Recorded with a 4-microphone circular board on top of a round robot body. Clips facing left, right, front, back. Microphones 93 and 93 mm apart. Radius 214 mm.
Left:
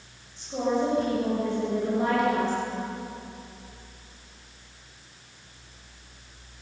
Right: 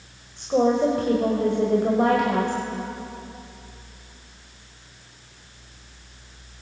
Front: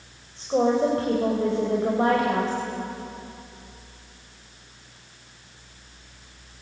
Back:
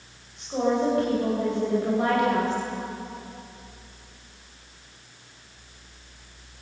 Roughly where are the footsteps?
I don't hear footsteps.